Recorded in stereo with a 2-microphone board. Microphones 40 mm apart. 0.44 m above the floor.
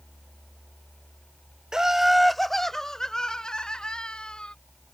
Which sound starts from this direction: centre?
Laughter, at 1.7 s.